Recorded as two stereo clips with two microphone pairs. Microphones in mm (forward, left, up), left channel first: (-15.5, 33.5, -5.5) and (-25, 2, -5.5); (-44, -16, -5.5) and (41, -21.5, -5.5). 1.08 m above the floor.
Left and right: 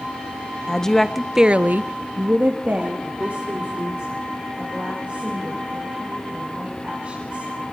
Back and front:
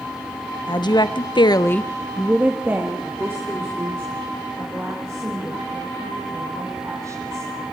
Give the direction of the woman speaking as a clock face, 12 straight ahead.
7 o'clock.